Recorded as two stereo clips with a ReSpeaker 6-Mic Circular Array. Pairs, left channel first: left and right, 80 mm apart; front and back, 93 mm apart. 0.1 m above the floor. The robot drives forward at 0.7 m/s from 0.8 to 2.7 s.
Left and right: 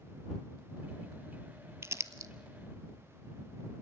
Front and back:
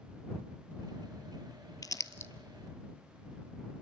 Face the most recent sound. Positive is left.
turn(degrees=-90)